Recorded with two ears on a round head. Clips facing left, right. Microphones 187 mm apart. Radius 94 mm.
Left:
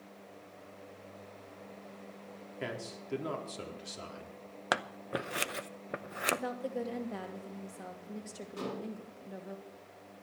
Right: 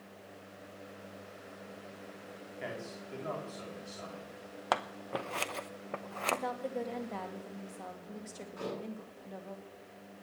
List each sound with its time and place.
2.6 s a man speaking: 50° left (ahead or behind), 4.5 m
4.7 s scissors: 20° left (ahead or behind), 0.7 m
6.3 s a woman speaking: 10° left (ahead or behind), 2.5 m
8.6 s dishes clattering: 45° left (ahead or behind), 9.5 m